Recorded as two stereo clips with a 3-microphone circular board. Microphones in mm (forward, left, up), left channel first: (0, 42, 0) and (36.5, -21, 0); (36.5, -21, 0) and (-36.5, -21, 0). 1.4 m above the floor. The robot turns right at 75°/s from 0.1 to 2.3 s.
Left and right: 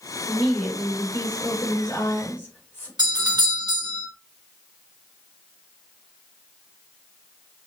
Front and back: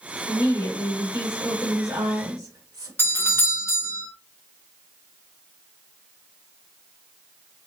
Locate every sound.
0.3 s a woman speaking: 25° left, 2.5 m; by 2.9 s straight behind, 2.5 m
3.0 s a doorbell: 55° right, 1.2 m